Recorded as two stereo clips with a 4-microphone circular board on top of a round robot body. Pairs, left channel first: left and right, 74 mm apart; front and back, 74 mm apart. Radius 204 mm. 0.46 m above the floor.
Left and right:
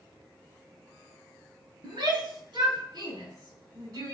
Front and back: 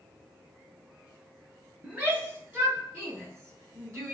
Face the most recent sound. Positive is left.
turn(degrees=-130)